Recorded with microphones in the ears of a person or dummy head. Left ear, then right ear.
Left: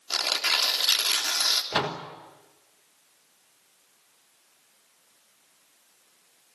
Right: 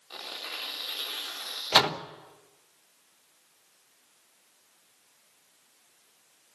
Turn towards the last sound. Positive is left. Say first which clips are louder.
# right 5 dB
turn(degrees=-40)  # may be behind; listen again after turning